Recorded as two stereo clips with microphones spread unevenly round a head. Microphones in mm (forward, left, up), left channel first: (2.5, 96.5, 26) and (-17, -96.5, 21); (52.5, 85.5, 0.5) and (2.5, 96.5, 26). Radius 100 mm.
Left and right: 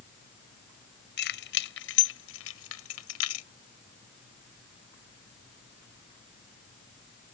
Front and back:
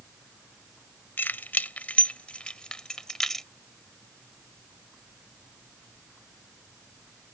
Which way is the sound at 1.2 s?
45° left.